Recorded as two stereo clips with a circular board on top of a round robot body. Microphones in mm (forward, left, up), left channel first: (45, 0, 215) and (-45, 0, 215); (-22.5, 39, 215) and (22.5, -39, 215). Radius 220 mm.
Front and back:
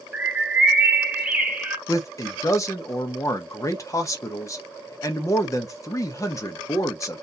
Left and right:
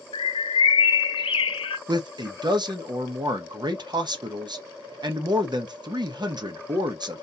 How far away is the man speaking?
About 1.1 m.